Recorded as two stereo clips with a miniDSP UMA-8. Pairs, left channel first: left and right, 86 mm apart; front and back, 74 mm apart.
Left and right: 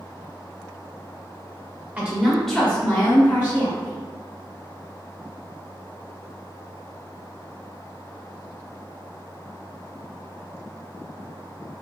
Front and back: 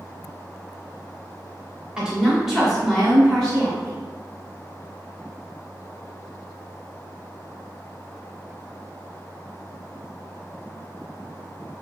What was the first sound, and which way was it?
A woman speaking, 125° right.